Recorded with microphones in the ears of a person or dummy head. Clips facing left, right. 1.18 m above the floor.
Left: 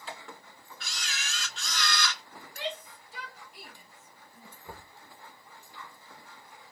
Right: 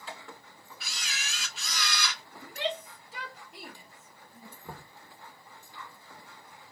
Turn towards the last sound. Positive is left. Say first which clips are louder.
# right 1 dB
turn(degrees=-75)  # may be behind; listen again after turning